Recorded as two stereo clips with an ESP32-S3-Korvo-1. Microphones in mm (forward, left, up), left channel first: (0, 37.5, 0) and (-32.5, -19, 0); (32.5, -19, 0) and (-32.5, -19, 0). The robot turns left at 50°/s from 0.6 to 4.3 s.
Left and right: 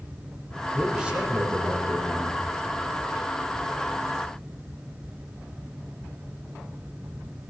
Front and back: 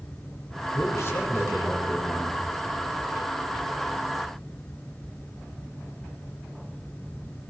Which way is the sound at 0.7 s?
30° right.